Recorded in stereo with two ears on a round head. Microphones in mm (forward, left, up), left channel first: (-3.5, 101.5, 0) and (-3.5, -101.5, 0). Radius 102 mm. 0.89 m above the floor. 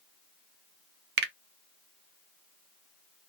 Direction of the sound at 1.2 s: 45° right (ahead or behind).